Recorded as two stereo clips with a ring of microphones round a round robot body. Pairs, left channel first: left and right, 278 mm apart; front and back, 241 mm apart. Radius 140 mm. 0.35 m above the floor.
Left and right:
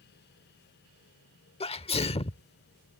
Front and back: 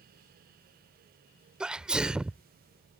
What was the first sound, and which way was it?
A sneeze, 100° left.